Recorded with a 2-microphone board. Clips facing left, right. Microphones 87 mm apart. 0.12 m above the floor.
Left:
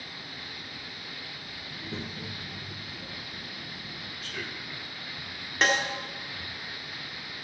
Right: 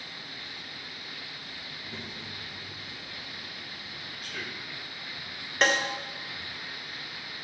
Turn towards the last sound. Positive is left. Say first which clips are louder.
# even
turn(degrees=0)  # may be behind; listen again after turning